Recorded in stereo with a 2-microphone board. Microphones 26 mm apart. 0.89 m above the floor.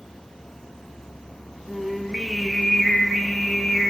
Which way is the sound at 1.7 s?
5° left (ahead or behind).